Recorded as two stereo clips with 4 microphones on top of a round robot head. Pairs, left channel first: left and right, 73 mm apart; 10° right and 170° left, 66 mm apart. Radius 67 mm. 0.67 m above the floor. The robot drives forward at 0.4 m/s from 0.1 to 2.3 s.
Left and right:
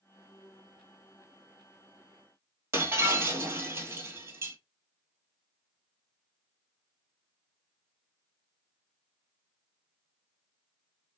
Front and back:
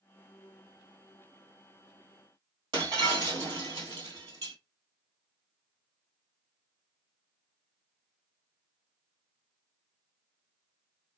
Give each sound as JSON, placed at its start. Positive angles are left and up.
{"t": 2.7, "sound": "breaking glass", "azimuth_deg": -145, "distance_m": 1.5}